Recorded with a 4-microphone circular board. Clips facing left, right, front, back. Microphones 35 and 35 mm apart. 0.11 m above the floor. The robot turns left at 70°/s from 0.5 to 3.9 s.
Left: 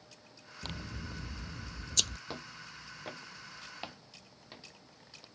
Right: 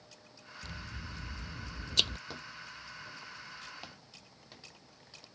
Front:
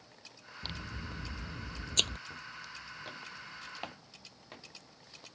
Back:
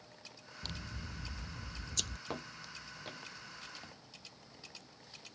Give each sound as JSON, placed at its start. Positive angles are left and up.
{"t": 0.6, "sound": "scissors", "azimuth_deg": 65}
{"t": 2.3, "sound": "footsteps", "azimuth_deg": 165}